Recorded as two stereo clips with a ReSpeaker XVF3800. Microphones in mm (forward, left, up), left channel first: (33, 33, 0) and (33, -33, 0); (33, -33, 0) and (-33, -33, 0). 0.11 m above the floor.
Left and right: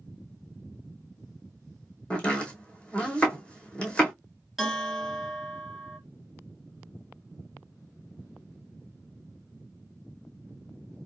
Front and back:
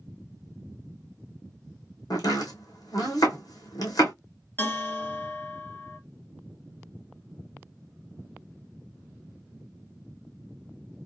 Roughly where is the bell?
Ahead.